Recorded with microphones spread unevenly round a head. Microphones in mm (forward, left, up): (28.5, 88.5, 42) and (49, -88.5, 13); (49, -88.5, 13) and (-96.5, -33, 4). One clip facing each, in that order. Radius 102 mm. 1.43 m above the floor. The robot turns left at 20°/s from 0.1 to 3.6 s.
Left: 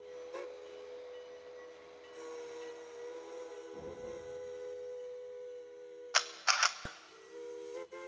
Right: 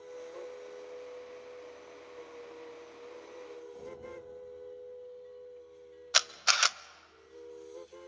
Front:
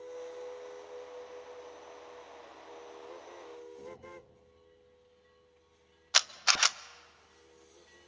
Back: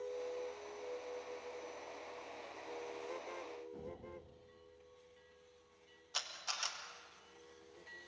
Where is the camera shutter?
30° right, 0.5 m.